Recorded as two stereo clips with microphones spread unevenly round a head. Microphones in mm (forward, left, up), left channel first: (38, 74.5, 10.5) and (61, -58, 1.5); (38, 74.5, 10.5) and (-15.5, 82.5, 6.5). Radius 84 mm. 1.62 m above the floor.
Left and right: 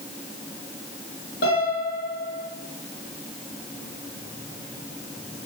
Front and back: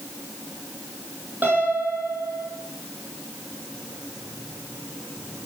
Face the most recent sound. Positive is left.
turn(degrees=115)